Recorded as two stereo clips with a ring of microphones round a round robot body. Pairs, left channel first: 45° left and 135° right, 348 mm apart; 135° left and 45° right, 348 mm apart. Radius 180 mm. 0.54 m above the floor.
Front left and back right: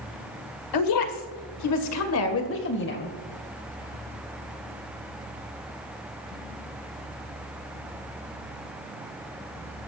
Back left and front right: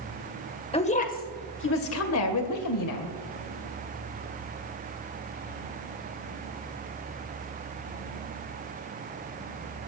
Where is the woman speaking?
60° left, 2 m; by 3.1 s 105° left, 2.5 m.